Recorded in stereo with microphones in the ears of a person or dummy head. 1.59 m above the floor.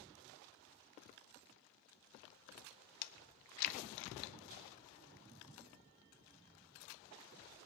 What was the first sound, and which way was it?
Chewing, 60° left (ahead or behind).